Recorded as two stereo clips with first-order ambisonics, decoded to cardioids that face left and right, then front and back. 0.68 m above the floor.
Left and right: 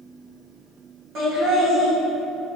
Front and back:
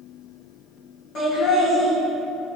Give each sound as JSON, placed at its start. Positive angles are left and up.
{"t": 1.1, "sound": "laughter", "azimuth_deg": -50, "distance_m": 1.1}